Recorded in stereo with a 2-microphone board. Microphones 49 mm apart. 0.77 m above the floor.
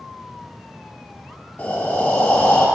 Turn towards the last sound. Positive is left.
turn(degrees=40)  # may be behind; listen again after turning